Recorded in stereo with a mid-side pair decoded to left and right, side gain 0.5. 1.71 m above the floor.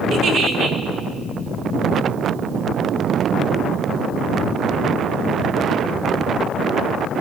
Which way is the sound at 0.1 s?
70° right.